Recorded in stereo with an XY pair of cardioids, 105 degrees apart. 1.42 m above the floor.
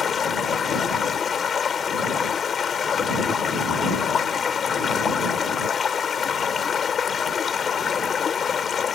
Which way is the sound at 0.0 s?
45° left.